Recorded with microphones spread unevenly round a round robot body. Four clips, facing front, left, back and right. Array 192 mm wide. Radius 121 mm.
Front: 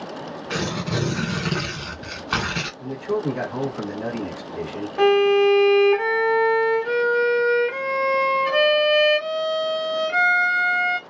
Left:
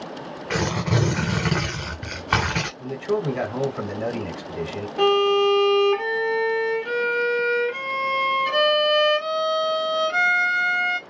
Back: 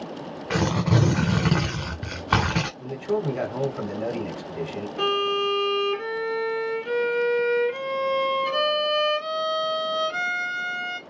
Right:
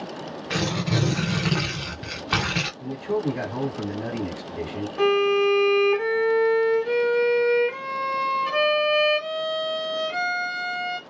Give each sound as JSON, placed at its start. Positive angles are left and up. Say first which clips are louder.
{"t": 0.5, "sound": "tearing paper", "louder": "left 2 dB, back 4 dB", "azimuth_deg": 180, "distance_m": 1.0}
{"t": 2.8, "sound": "a man speaking", "louder": "left 1 dB, front 4 dB", "azimuth_deg": 55, "distance_m": 1.8}
{"t": 5.0, "sound": "a violin", "louder": "left 2 dB, front 9 dB", "azimuth_deg": 10, "distance_m": 1.4}